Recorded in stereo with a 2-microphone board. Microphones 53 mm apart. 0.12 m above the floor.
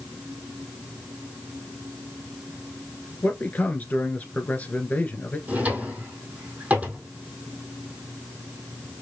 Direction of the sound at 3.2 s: 30° left (ahead or behind).